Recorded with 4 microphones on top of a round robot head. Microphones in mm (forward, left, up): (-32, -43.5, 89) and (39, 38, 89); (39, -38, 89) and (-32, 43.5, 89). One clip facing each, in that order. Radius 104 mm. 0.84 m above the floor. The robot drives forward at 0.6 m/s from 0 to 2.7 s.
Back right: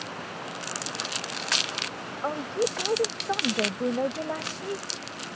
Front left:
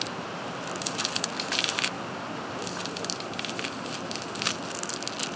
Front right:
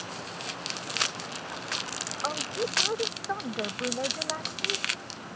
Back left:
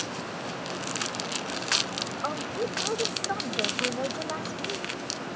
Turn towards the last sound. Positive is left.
turn(degrees=-145)